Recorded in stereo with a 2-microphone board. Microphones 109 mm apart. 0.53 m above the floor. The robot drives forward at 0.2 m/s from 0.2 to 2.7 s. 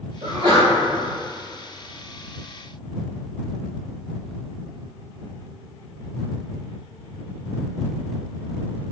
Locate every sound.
0.2 s a sneeze: 50° right (ahead or behind), 1.9 m